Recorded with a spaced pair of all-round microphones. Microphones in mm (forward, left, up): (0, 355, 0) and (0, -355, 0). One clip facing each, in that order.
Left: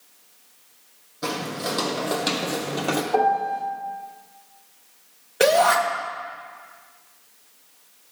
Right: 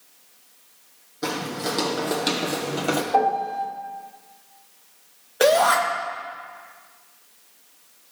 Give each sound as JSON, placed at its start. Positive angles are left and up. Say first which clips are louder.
{"t": 1.2, "sound": "footsteps", "louder": "right 1 dB", "side_deg": 10, "distance_m": 2.5}
{"t": 3.1, "sound": "a piano", "louder": "left 1 dB", "side_deg": 70, "distance_m": 2.5}
{"t": 5.4, "sound": "a shout", "louder": "even", "side_deg": 55, "distance_m": 1.9}